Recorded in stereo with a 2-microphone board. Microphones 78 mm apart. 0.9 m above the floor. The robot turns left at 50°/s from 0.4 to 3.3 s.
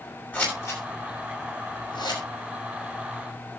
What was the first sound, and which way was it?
Scissors, 20° left (ahead or behind).